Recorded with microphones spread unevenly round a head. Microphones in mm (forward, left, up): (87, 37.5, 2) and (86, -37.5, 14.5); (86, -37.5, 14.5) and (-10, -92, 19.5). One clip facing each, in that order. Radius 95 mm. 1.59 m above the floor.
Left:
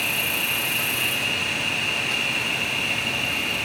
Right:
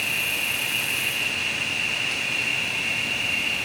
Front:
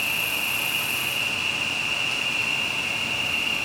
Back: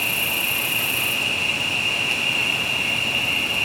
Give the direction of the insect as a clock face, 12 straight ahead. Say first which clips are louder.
Left 2 dB, back 3 dB; 7 o'clock.